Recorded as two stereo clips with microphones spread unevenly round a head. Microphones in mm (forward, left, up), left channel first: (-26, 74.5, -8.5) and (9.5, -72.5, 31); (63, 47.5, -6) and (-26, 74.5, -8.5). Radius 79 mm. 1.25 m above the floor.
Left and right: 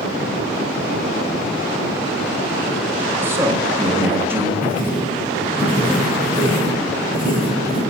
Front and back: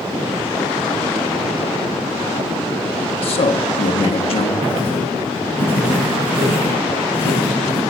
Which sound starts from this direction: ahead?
A man speaking, at 3.2 s.